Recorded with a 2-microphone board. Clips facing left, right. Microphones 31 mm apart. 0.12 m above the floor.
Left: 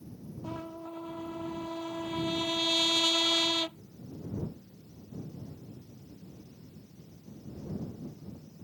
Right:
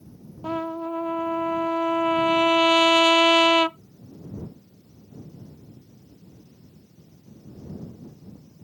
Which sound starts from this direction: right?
A trumpet, at 0.4 s.